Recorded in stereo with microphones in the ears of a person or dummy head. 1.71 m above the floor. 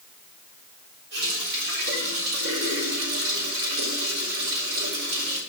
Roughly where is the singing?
No singing in this recording.